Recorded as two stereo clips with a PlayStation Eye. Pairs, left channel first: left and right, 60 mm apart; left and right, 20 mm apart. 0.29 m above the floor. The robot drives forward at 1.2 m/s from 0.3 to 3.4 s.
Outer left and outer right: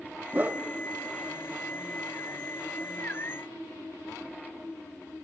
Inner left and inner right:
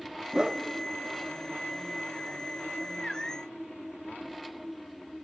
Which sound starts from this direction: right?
A whoosh, at 0.3 s.